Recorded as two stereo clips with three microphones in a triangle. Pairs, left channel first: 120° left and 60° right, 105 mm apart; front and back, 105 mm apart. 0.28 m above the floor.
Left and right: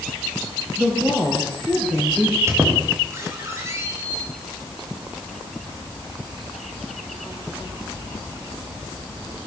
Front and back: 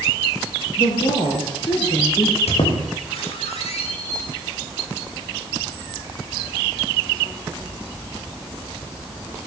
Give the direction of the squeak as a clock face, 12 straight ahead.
12 o'clock.